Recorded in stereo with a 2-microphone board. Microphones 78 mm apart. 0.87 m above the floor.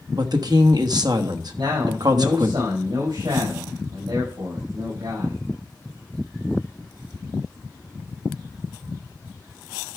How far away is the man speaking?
About 6 m.